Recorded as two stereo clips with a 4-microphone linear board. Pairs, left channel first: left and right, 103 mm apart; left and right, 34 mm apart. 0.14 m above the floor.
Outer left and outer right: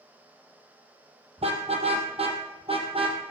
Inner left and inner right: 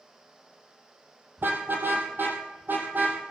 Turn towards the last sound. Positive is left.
turn(degrees=-65)  # may be behind; listen again after turning